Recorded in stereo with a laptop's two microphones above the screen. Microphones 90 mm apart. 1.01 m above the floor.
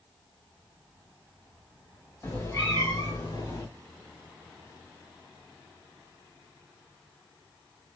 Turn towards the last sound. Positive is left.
turn(degrees=60)  # may be behind; listen again after turning